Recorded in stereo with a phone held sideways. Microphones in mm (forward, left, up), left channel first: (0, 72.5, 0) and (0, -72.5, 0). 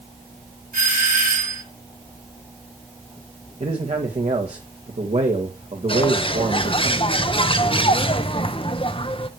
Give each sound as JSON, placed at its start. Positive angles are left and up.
{"t": 0.7, "sound": "a doorbell", "side_deg": -80, "distance_m": 4.5}
{"t": 3.6, "sound": "a man speaking", "side_deg": -50, "distance_m": 2.0}
{"t": 5.9, "sound": "a bird", "side_deg": 40, "distance_m": 0.8}